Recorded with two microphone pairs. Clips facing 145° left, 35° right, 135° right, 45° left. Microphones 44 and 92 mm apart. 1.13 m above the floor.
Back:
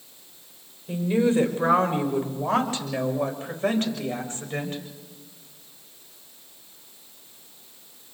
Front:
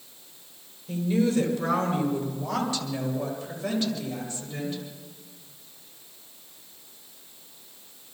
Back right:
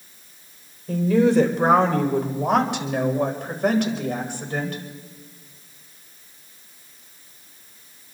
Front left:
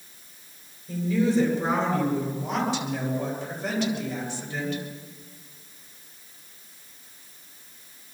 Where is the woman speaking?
150° right, 4.5 m; by 4.8 s 170° right, 5.5 m.